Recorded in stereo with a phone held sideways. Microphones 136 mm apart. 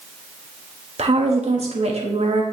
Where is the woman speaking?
50° right (ahead or behind), 1.0 m.